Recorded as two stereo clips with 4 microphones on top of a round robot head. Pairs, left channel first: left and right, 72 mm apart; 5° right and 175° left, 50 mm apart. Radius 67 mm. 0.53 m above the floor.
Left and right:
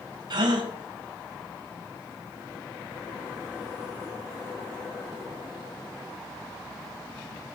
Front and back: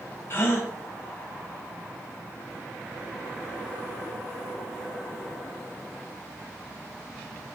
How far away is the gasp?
About 1.9 m.